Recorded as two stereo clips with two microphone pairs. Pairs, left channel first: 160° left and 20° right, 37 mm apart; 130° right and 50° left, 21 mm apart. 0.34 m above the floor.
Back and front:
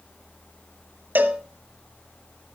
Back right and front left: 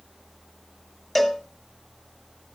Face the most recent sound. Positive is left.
turn(degrees=-50)